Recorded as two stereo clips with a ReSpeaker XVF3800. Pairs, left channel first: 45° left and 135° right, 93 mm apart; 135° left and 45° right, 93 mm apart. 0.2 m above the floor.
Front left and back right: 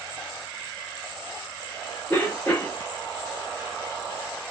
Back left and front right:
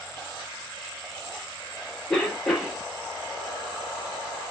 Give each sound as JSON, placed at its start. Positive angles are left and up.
{"t": 2.1, "sound": "a cough", "azimuth_deg": 70, "distance_m": 1.6}